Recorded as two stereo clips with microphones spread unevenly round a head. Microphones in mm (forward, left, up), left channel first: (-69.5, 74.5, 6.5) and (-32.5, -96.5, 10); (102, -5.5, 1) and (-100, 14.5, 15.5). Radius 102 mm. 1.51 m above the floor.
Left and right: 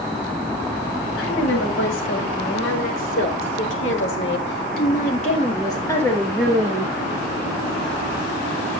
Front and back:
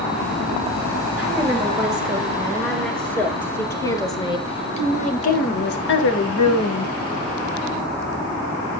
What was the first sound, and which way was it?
A woman speaking, 90° left.